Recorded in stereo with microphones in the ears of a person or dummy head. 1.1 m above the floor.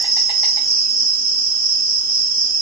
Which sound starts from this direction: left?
An insect, at 0.0 s.